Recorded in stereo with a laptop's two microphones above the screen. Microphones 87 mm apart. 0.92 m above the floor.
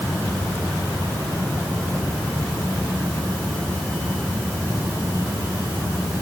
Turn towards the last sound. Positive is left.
No sound to turn to.